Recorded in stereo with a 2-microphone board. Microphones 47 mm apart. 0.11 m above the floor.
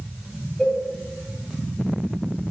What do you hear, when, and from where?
0.6 s a cowbell: 5° left (ahead or behind), 5.5 m